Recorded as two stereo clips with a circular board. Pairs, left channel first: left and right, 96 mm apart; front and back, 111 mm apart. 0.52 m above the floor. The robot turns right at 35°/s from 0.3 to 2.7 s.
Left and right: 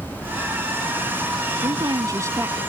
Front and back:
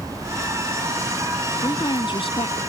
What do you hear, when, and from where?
1.6 s a woman speaking: 55° right; by 2.6 s 20° right